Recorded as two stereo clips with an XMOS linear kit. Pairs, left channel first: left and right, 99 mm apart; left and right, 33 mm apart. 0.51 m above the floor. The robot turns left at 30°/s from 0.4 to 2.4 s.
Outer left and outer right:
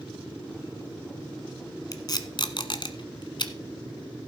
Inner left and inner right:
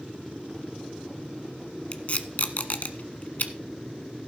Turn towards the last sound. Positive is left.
turn(degrees=50)  # may be behind; listen again after turning